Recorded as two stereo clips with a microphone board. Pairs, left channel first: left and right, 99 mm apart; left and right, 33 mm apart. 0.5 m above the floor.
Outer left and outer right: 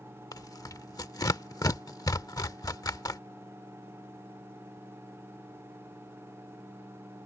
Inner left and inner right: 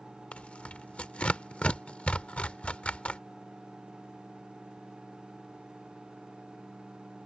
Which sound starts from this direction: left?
Tearing paper, at 0.3 s.